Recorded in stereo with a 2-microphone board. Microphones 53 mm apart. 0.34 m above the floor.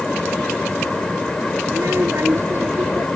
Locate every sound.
1.7 s a child speaking: 65° right (ahead or behind); by 3.1 s 50° right (ahead or behind)